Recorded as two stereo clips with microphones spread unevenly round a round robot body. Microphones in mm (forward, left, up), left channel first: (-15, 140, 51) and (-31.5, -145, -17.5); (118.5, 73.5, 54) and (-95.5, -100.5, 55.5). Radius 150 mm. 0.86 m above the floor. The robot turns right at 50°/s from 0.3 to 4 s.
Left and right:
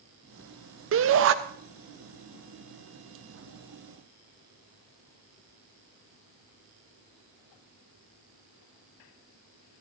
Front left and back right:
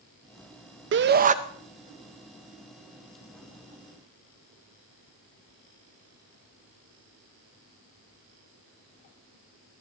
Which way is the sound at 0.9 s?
100° right.